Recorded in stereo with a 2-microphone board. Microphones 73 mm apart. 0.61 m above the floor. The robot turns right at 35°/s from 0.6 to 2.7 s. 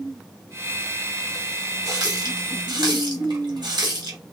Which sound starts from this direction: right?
A running tap, at 1.9 s.